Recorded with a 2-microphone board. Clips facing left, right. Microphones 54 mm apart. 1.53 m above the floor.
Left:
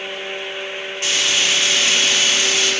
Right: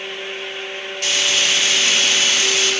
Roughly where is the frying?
Left.